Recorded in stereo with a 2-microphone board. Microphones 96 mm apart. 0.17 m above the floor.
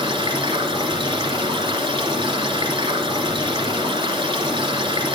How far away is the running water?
About 1.9 m.